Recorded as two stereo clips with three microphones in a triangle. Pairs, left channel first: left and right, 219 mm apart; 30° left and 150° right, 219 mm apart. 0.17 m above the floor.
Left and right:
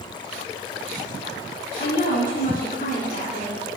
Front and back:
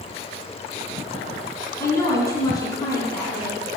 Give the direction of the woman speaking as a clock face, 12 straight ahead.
9 o'clock.